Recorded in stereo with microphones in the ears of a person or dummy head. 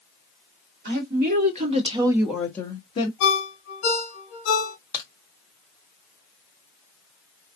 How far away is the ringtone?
About 0.8 m.